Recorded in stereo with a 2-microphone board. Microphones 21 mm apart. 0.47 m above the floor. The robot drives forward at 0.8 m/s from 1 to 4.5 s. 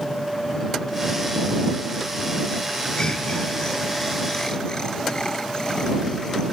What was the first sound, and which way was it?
Laughter, 45° left (ahead or behind).